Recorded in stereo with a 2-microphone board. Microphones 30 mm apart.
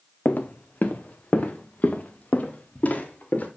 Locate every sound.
0.2 s footsteps: 70° left (ahead or behind), 0.7 m; by 3.5 s 60° left (ahead or behind), 2 m